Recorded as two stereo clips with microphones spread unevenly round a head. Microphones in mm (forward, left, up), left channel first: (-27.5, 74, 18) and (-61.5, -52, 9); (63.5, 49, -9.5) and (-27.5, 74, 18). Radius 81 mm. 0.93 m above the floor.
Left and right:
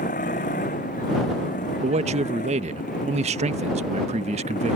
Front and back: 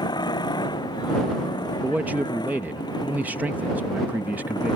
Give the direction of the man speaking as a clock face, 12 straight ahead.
4 o'clock.